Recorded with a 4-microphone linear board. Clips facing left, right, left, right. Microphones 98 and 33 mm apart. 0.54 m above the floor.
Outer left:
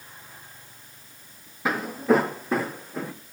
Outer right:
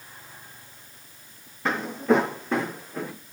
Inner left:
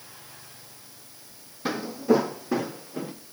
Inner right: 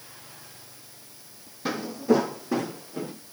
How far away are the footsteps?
About 1.3 m.